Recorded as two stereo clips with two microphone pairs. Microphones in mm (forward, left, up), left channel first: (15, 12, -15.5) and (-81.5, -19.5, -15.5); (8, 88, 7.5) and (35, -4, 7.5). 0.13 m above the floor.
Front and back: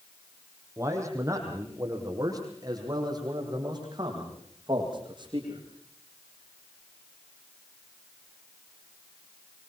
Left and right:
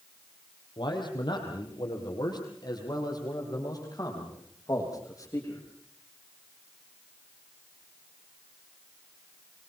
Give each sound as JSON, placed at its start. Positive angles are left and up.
{"t": 0.8, "sound": "a man speaking", "azimuth_deg": 140, "distance_m": 6.0}